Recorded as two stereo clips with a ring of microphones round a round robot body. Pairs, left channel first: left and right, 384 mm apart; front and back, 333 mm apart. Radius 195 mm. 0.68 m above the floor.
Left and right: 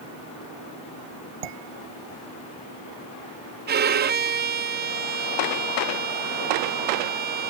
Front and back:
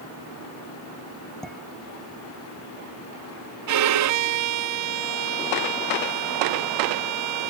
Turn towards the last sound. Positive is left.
turn(degrees=-150)